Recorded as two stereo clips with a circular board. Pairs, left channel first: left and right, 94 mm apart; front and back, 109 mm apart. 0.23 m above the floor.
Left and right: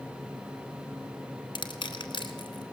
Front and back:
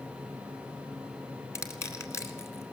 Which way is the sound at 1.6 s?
60° left.